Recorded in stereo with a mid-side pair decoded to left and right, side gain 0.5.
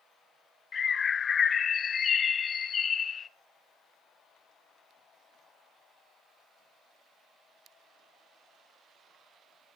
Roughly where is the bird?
Ahead left.